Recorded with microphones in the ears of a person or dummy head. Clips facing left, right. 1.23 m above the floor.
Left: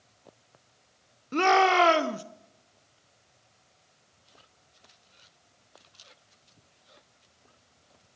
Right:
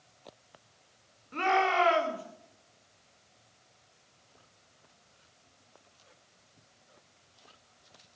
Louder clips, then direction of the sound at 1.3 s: Left 6 dB; 45° left (ahead or behind).